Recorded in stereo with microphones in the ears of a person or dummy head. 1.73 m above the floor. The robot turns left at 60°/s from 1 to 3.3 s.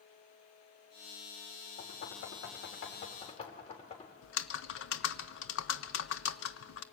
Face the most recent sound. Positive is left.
turn(degrees=80)